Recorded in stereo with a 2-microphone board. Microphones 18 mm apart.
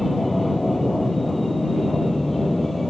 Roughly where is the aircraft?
Centre.